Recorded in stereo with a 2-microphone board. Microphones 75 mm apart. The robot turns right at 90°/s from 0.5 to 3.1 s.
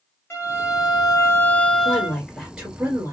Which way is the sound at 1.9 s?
20° left (ahead or behind).